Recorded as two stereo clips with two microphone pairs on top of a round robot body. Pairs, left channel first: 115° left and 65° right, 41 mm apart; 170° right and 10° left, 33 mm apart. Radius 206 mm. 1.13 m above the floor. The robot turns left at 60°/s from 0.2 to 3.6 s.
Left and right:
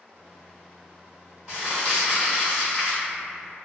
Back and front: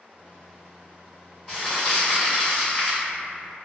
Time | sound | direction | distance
1.5 | crumpling | 105° right | 1.1 m